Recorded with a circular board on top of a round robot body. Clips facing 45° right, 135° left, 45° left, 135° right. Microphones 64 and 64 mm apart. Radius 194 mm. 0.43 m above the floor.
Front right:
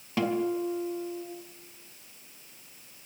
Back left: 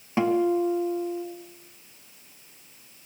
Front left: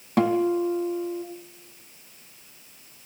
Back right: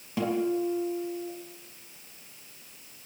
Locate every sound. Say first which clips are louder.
0.2 s a guitar: back left 6 dB, front left 6 dB; 70° left, 4 m